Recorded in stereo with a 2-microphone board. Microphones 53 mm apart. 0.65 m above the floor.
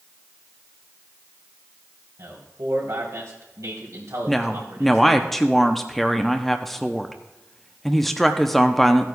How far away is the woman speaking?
About 0.6 m.